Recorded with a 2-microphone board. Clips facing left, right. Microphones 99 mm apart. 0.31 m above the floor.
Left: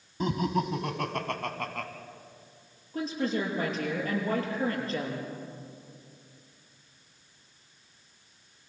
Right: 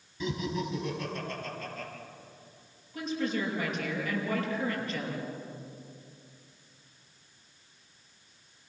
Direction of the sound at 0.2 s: 50° left (ahead or behind).